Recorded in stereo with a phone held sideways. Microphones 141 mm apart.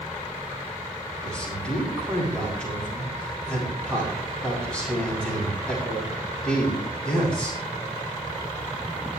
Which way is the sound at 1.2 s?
5° left (ahead or behind).